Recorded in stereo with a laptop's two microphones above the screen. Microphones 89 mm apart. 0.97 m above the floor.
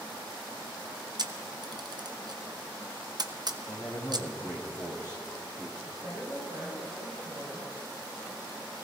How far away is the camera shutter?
About 0.7 m.